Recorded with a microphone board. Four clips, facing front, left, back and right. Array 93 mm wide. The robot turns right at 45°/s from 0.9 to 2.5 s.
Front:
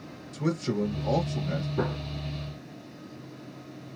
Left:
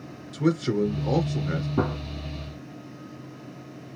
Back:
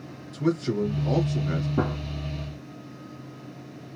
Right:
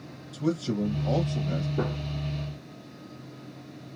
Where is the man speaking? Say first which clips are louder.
Left 4 dB, back 3 dB; 100° left, 2 m; by 1.7 s 135° left, 2 m.